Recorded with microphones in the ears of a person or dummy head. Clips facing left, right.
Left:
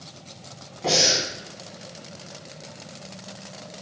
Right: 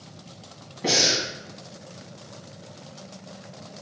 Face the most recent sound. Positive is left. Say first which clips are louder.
# left 1 dB
turn(degrees=-20)  # may be behind; listen again after turning